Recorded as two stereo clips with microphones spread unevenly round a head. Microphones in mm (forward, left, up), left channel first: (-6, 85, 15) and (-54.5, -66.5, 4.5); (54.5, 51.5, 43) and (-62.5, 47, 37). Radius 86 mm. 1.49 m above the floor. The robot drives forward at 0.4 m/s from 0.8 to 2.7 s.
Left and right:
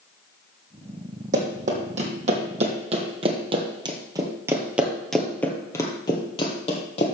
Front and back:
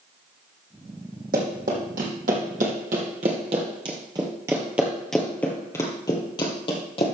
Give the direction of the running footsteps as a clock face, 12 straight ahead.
5 o'clock.